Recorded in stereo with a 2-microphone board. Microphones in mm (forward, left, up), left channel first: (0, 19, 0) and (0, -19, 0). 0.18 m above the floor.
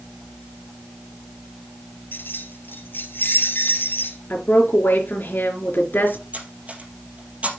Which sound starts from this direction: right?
Cutlery clinking, at 6.3 s.